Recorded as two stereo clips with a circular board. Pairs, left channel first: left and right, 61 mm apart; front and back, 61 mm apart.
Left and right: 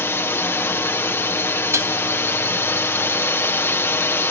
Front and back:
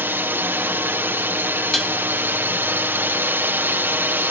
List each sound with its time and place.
0.0 s a drone: 130° left
1.7 s dishes clattering: 85° right